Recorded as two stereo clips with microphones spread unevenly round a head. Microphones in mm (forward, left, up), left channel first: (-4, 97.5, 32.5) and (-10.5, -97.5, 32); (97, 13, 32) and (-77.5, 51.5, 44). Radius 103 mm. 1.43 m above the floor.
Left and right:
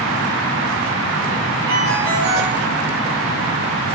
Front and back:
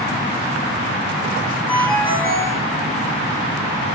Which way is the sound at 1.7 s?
90° right.